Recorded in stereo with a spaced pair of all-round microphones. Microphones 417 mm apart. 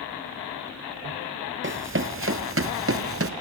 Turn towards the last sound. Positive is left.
turn(degrees=-35)  # may be behind; listen again after turning